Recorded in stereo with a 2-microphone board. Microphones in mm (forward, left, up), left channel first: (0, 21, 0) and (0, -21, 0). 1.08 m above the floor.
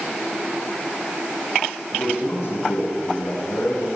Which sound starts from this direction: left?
A man speaking, at 1.9 s.